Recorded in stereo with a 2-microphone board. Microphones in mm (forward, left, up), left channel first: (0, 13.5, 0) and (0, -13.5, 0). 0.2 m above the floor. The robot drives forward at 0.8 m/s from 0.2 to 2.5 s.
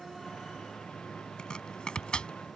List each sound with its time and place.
1.4 s chopping: 35° left (ahead or behind); by 2.6 s 40° left (ahead or behind)